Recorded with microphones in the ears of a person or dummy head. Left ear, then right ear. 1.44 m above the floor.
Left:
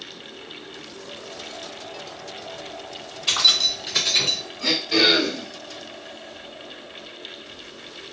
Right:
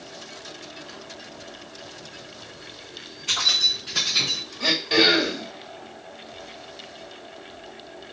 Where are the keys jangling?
50° left (ahead or behind), 1.2 m; by 4.4 s 10° left (ahead or behind), 0.8 m.